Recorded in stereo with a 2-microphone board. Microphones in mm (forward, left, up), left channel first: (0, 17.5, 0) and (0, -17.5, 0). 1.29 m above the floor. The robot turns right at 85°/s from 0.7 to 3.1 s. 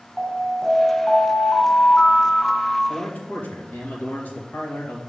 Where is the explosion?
I don't hear an explosion.